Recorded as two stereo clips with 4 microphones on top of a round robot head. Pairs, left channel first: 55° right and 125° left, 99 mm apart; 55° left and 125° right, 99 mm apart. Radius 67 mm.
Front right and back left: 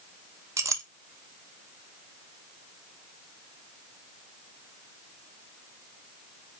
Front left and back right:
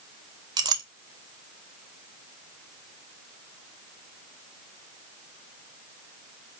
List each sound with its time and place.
0.6 s a clink: 175° right, 0.7 m